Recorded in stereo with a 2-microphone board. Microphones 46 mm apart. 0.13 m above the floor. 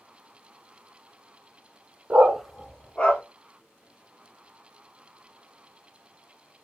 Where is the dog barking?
35° right (ahead or behind), 0.5 m; by 3.2 s 25° left (ahead or behind), 1.4 m.